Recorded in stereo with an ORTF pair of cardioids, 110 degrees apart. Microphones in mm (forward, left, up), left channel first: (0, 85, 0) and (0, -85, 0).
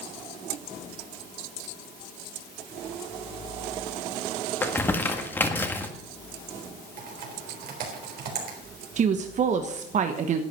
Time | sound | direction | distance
4.6 | crumpling | 10° left | 1.7 m
7.0 | typing on a keyboard | 65° right | 3.5 m
9.0 | a woman speaking | 50° right | 1.3 m